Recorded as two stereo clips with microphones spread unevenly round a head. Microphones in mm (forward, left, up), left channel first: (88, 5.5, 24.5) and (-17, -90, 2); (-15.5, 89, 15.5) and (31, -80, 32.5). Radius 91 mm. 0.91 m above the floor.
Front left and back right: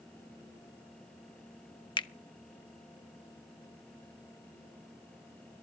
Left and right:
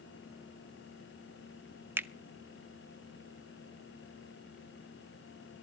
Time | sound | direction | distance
2.0 | a finger snap | straight ahead | 0.6 m